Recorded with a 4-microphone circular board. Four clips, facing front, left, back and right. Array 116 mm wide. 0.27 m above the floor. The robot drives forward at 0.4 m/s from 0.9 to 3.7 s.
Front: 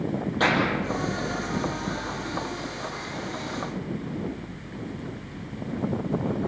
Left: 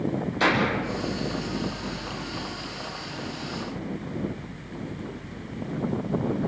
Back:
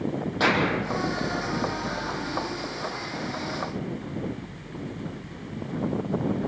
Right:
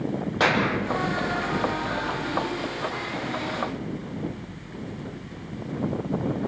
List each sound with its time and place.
0.4 s a clap: 100° right, 7.5 m